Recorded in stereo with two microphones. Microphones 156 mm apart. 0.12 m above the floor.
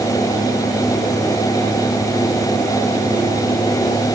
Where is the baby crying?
No baby crying in this recording.